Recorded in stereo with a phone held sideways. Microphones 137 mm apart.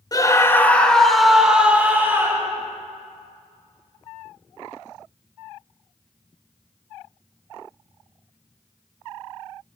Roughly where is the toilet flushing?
No toilet flushing in this recording.